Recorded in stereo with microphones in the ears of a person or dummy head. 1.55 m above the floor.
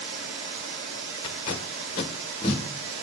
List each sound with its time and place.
0.0 s running water: 70° right (ahead or behind), 2 m
1.2 s tape being pulled: 20° left (ahead or behind), 1.0 m